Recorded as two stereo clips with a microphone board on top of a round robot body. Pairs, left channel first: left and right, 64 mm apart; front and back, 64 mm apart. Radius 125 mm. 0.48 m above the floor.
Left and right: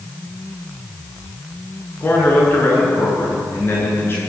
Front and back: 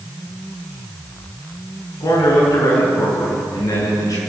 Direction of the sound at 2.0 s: 35° left.